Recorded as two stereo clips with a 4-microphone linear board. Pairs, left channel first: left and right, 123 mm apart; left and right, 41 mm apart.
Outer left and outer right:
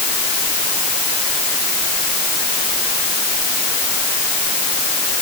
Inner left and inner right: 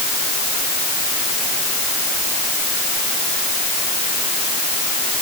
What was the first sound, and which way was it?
Only background noise.